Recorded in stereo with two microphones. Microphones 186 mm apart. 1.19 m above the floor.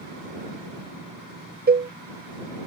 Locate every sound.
1.7 s a cowbell: 65° right (ahead or behind)